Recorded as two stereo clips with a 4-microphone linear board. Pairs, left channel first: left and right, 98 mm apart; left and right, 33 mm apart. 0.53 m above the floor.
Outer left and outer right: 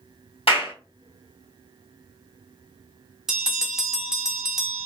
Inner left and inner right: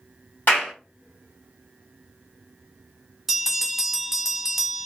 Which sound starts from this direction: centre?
A bell, at 3.3 s.